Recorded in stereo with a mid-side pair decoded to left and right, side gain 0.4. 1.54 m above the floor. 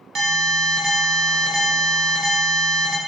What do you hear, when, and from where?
0.1 s an alarm: 70° right, 0.6 m